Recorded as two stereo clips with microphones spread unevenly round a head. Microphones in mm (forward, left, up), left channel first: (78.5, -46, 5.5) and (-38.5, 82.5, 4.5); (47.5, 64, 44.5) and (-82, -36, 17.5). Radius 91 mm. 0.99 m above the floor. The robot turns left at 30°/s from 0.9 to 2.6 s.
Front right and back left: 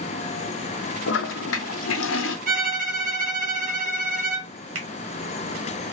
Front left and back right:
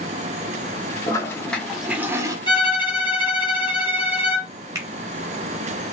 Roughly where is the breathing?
No breathing in this recording.